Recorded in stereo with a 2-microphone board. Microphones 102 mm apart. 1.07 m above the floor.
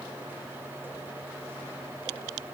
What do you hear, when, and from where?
Only background noise.